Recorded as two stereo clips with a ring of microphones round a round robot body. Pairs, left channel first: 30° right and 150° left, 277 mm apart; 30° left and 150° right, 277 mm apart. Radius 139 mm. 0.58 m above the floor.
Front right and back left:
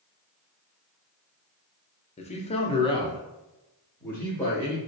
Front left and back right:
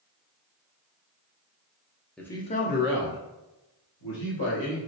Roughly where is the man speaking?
Ahead right.